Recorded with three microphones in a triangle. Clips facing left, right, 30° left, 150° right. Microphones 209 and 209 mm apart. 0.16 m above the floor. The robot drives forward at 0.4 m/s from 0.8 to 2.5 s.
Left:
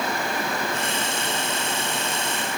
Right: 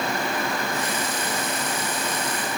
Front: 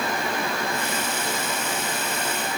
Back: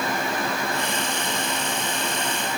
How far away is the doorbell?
No doorbell in this recording.